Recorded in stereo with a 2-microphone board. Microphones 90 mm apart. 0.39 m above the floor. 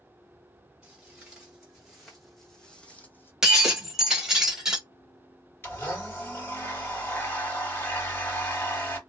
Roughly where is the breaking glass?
Centre.